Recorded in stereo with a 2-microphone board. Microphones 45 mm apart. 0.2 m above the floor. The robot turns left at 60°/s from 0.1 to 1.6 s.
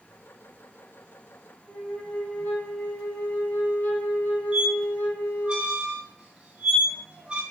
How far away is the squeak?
About 0.6 m.